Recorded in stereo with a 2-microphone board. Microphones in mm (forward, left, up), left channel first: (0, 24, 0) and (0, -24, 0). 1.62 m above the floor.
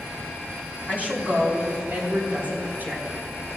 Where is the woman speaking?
35° right (ahead or behind), 3.5 m; by 3.0 s 45° right (ahead or behind), 4.5 m.